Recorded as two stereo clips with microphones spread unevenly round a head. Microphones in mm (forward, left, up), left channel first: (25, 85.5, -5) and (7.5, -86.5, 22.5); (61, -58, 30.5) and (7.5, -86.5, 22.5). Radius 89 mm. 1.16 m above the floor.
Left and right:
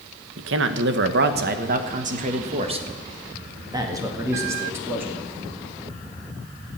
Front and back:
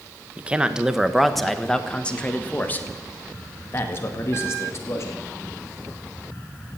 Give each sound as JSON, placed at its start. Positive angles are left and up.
{"t": 0.4, "sound": "a man speaking", "azimuth_deg": -85, "distance_m": 1.3}